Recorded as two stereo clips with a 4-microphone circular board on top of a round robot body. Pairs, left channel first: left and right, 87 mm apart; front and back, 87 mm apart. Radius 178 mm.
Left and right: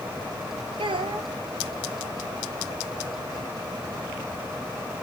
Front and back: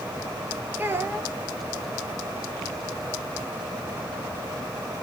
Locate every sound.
0.8 s a child speaking: 115° right, 1.5 m